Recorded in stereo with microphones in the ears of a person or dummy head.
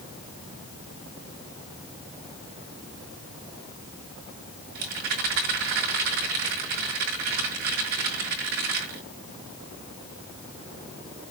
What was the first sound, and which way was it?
A rattle, 60° right (ahead or behind).